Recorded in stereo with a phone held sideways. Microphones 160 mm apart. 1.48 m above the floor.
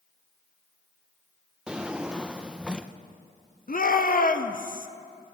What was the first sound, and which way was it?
A drawer, 5° right (ahead or behind).